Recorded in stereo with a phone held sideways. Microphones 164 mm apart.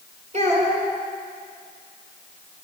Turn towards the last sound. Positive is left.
turn(degrees=-45)  # may be behind; listen again after turning